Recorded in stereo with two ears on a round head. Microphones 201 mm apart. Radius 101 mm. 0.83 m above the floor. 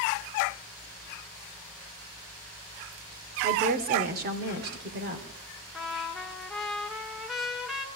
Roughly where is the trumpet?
Centre.